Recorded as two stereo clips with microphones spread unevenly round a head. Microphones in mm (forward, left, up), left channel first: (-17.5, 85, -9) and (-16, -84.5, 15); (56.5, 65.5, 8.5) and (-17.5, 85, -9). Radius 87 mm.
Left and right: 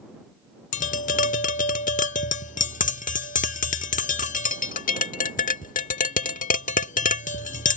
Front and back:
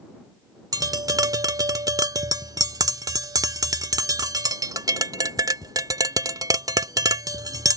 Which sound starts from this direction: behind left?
Tapping, at 0.7 s.